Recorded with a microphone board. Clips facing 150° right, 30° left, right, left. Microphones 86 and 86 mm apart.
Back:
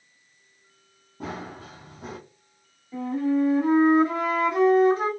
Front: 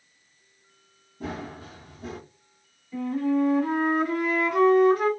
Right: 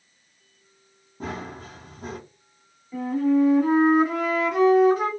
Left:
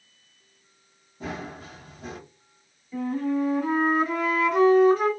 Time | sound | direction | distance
1.2 | running footsteps | 130° right | 1.7 m
2.9 | a flute | 155° right | 1.7 m